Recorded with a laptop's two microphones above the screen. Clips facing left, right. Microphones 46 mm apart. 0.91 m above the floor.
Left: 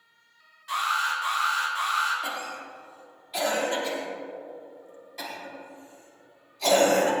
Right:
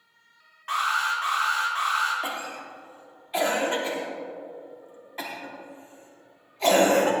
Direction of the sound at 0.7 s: 50° right (ahead or behind).